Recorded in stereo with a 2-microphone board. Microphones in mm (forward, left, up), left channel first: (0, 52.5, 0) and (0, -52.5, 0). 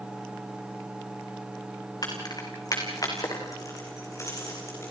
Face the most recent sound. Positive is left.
turn(degrees=30)  # may be behind; listen again after turning